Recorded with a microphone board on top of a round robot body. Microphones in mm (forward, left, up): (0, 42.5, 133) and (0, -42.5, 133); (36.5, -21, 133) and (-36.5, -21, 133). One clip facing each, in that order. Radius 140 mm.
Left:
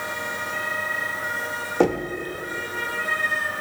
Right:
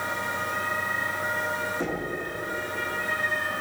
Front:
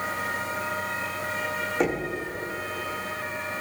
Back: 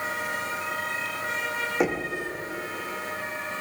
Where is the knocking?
95° left, 1.5 m.